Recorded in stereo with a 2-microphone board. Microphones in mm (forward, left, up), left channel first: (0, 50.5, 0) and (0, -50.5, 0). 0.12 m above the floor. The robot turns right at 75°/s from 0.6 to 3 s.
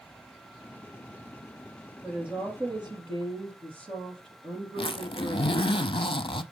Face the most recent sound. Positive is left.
turn(degrees=60)  # may be behind; listen again after turning